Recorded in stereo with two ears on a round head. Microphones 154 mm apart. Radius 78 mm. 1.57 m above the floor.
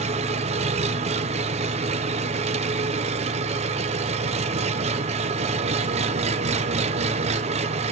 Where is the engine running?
40° right (ahead or behind), 0.7 m.